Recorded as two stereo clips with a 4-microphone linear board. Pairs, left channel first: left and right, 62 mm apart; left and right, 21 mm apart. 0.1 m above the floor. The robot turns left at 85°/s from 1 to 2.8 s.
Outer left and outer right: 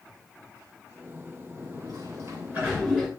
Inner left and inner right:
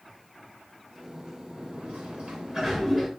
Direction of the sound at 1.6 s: 60° right.